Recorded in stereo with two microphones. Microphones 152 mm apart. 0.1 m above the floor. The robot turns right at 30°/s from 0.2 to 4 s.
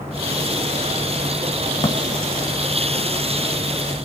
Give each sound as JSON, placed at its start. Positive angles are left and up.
{"t": 1.8, "sound": "a drawer", "side_deg": 30, "distance_m": 1.1}